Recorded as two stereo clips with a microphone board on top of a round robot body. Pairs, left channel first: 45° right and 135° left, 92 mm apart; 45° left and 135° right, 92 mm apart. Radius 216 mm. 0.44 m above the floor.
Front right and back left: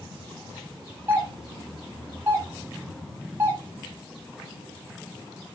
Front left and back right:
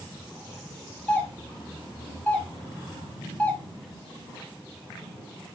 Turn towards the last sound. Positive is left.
turn(degrees=105)